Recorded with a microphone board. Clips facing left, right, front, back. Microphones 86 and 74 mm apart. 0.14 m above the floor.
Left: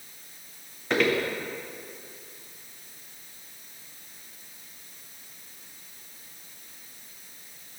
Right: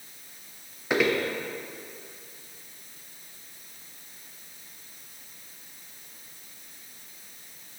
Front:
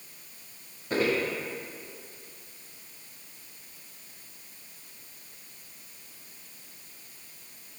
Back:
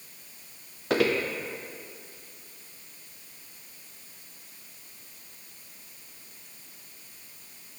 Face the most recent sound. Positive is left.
turn(degrees=-170)